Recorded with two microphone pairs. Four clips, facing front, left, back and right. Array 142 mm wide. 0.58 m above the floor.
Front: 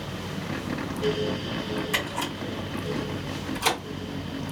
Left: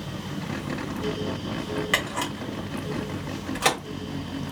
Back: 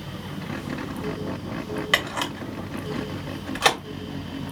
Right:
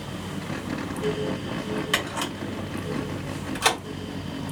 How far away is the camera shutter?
About 2.5 m.